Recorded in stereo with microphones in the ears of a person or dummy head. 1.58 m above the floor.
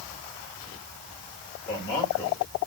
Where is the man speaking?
30° left (ahead or behind), 7 m.